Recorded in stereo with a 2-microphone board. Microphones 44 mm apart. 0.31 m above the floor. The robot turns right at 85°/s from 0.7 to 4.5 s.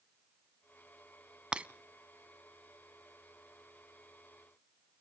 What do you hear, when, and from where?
1.5 s breaking glass: 20° right (ahead or behind), 0.6 m; by 1.7 s 30° right (ahead or behind), 0.6 m